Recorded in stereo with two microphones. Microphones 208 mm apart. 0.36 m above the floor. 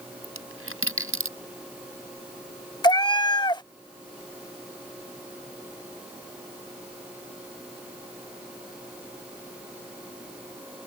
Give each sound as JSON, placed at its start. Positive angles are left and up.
{"t": 0.2, "sound": "a dropped coin", "side_deg": -85}
{"t": 2.8, "sound": "a cat meowing", "side_deg": 20}